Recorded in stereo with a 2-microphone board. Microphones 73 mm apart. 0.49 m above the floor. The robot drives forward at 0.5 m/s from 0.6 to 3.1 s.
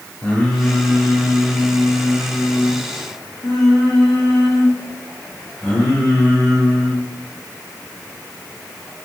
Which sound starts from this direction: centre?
Singing, at 0.2 s.